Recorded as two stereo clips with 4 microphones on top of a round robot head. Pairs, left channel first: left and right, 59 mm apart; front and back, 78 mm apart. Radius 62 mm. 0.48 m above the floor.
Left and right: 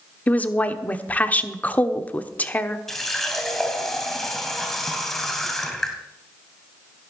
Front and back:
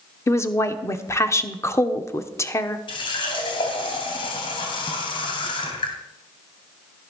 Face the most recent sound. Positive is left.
turn(degrees=5)